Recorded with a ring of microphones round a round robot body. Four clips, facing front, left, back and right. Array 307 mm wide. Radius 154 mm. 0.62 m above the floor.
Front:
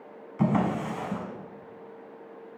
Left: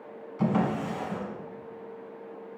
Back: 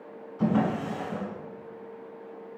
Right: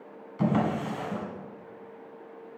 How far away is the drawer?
About 1.2 m.